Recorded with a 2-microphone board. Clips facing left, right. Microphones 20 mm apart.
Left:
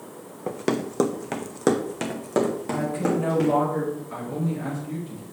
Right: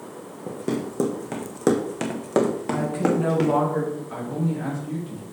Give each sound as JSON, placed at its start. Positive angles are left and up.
{"t": 0.5, "sound": "running footsteps", "side_deg": 65, "distance_m": 0.9}
{"t": 2.7, "sound": "a woman speaking", "side_deg": -20, "distance_m": 2.5}
{"t": 4.1, "sound": "a man speaking", "side_deg": -10, "distance_m": 3.5}